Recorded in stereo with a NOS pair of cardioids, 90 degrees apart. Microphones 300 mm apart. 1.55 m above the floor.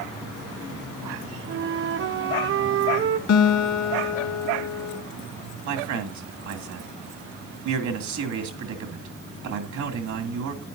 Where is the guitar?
60° left, 1.8 m.